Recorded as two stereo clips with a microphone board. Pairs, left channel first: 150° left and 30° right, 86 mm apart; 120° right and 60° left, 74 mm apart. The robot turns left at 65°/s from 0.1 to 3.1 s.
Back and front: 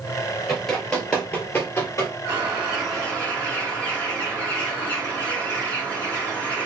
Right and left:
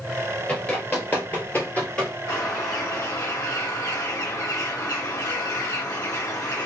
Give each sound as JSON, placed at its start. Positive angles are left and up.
{"t": 0.5, "sound": "running footsteps", "azimuth_deg": -130, "distance_m": 1.7}
{"t": 2.3, "sound": "a bird", "azimuth_deg": -85, "distance_m": 2.5}